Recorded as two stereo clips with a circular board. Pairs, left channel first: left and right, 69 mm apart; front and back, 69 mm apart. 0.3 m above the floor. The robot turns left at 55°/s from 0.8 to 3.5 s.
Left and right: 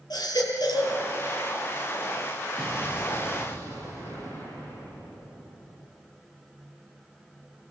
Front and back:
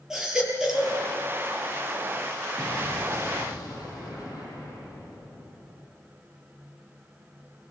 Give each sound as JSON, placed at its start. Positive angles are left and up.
{"t": 0.1, "sound": "a baby crying", "azimuth_deg": 100, "distance_m": 5.5}
{"t": 2.6, "sound": "an explosion", "azimuth_deg": 80, "distance_m": 9.0}